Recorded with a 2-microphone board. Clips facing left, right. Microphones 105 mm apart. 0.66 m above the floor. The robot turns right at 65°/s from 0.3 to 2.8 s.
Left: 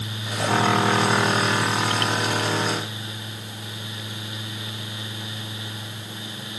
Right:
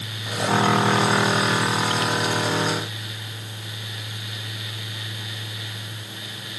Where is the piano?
No piano in this recording.